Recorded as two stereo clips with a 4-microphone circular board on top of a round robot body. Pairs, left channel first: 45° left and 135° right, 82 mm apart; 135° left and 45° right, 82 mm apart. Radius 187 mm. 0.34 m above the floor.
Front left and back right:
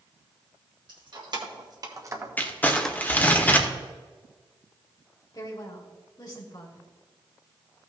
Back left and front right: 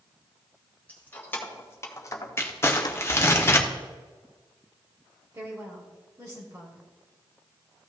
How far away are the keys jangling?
About 2.5 m.